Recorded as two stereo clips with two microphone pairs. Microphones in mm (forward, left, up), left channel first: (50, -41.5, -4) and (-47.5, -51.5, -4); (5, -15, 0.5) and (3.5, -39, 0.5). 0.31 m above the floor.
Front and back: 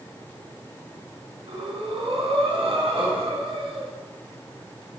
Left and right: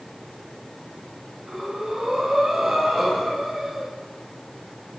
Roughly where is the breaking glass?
No breaking glass in this recording.